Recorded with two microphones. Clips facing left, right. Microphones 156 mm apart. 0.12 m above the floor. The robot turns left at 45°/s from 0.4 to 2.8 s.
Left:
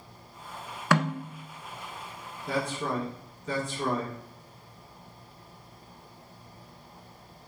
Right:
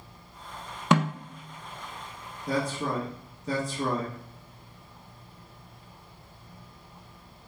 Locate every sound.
0.9 s a snare drum: 20° right (ahead or behind), 0.8 m
2.5 s a man speaking: 40° right (ahead or behind), 2 m; by 4.2 s 35° right (ahead or behind), 2 m